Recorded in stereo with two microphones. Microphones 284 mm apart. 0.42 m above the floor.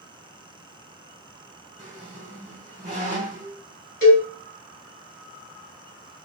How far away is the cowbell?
About 1.5 m.